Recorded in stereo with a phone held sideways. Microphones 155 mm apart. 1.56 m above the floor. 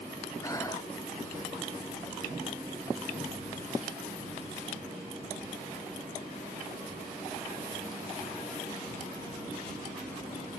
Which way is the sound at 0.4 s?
20° left (ahead or behind).